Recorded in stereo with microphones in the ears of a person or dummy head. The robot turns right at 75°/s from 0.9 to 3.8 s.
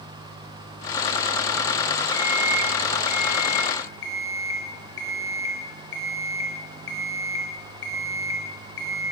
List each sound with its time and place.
2.1 s an alarm clock: 30° right, 3 m; by 9.0 s 100° left, 3 m